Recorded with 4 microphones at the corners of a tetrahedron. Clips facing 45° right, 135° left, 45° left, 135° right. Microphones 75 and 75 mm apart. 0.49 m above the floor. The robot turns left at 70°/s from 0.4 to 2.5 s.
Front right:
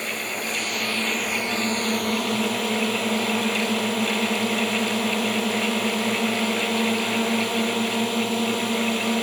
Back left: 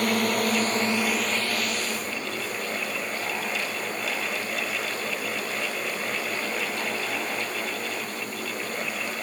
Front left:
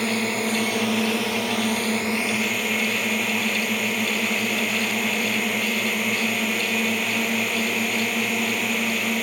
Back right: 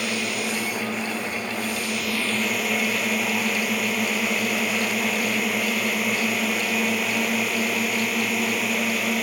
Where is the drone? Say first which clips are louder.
Back left 6 dB, front left 3 dB; 100° left; by 9.2 s 45° right.